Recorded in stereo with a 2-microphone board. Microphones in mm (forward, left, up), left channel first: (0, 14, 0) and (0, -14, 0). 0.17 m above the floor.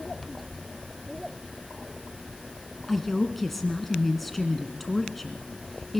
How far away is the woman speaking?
About 1.7 m.